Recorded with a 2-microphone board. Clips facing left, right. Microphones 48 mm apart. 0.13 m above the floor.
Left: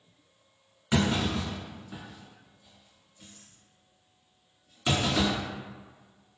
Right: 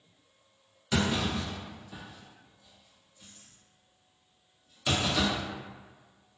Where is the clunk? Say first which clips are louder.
Left 2 dB; 25° left (ahead or behind), 1.5 m.